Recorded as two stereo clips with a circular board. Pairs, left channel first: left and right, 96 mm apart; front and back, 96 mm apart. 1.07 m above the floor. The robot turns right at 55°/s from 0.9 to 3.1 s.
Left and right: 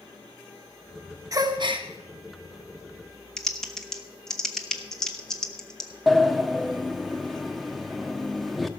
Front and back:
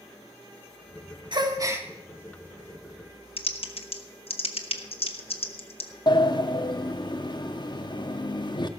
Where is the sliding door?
Straight ahead, 0.7 m.